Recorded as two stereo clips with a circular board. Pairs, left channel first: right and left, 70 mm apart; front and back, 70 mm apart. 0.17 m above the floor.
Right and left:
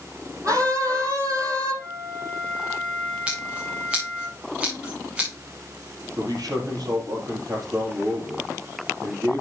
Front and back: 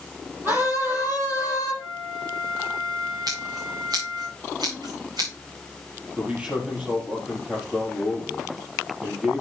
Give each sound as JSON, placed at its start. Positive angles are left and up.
{"t": 0.5, "sound": "a scream", "azimuth_deg": 130, "distance_m": 6.5}
{"t": 1.8, "sound": "a flute", "azimuth_deg": 160, "distance_m": 6.5}
{"t": 3.3, "sound": "scissors", "azimuth_deg": 165, "distance_m": 4.5}
{"t": 6.2, "sound": "a man speaking", "azimuth_deg": 110, "distance_m": 4.0}